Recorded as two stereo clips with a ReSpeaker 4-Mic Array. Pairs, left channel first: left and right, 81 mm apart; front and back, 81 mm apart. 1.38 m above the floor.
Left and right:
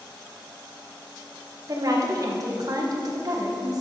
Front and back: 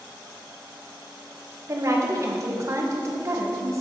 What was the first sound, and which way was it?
A woman speaking, 130° right.